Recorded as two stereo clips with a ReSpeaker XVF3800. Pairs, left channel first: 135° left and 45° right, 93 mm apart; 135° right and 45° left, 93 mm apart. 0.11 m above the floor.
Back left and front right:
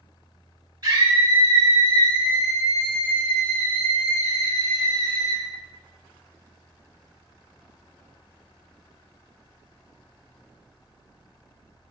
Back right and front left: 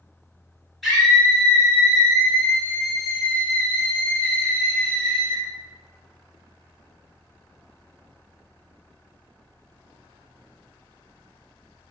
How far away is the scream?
About 1.8 m.